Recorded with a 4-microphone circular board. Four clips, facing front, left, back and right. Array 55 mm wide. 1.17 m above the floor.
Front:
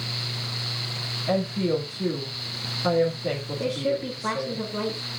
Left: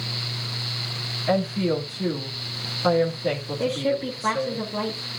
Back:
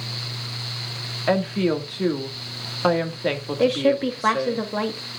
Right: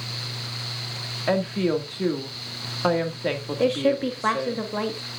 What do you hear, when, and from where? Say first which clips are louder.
1.3 s a woman speaking: even, back 4 dB; 150° right, 1.9 m
3.6 s a woman speaking: right 4 dB, back 8 dB; 150° right, 2.5 m